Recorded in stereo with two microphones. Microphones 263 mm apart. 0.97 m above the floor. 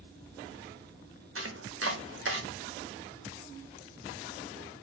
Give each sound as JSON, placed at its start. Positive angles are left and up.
{"t": 1.4, "sound": "chopping", "side_deg": -55, "distance_m": 0.6}